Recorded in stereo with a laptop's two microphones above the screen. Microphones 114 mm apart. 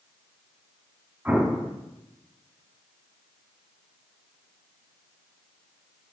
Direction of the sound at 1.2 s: 15° right (ahead or behind).